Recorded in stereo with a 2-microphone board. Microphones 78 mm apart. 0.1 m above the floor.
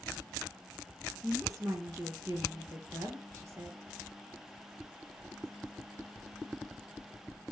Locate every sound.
1.2 s a woman speaking: 45° right (ahead or behind), 2 m